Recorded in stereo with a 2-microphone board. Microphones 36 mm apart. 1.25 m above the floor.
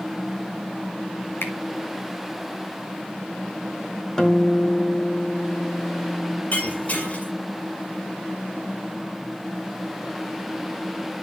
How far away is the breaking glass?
About 5.5 m.